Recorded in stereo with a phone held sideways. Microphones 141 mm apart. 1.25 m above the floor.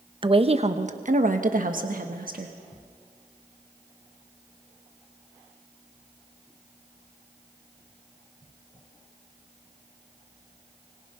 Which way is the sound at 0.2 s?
35° right (ahead or behind).